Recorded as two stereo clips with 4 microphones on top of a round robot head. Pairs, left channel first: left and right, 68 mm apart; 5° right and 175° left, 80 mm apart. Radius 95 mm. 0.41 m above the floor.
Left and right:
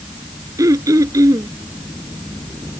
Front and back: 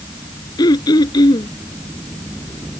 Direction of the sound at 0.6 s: 45° right.